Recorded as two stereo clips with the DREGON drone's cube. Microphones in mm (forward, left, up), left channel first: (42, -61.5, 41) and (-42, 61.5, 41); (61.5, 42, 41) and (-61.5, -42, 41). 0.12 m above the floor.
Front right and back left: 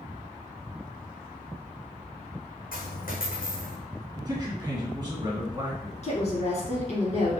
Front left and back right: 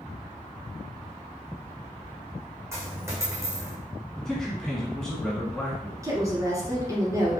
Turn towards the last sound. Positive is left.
turn(degrees=-80)